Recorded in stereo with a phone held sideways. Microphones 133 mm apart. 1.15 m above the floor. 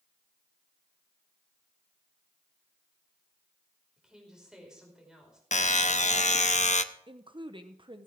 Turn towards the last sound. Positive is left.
turn(degrees=-40)  # may be behind; listen again after turning